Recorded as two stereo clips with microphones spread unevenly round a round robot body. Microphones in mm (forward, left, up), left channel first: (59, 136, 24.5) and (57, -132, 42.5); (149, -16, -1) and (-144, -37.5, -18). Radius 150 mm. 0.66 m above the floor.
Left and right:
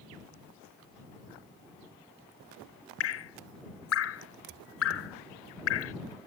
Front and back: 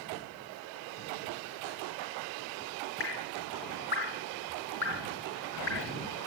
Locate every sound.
3.0 s dripping: 55° left